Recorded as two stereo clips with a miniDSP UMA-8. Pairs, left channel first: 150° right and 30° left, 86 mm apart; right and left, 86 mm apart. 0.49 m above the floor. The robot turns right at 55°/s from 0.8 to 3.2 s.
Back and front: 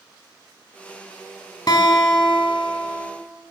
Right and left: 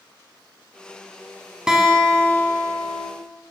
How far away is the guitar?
About 1.0 m.